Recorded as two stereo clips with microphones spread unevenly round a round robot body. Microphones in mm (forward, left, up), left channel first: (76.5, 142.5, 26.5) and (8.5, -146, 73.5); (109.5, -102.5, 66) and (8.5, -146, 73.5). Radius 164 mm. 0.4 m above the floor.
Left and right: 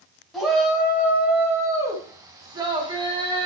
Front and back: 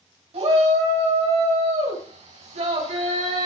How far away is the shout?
About 4 m.